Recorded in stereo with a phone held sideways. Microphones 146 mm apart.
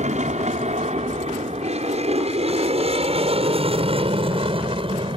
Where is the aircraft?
55° right (ahead or behind); by 5.2 s 35° right (ahead or behind).